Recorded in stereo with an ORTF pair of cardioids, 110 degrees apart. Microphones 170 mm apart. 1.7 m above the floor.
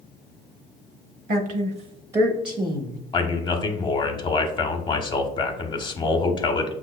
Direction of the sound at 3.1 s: 30° left.